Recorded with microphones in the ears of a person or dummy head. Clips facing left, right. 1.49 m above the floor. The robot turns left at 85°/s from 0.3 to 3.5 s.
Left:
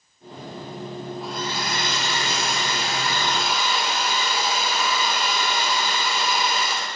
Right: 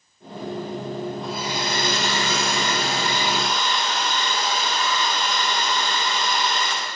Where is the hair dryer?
5° left, 3 m; by 6.9 s 170° left, 3 m.